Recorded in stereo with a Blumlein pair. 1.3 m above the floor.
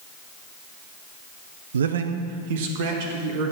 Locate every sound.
1.7 s a man speaking: 70° right, 0.8 m; by 3.5 s 50° right, 3 m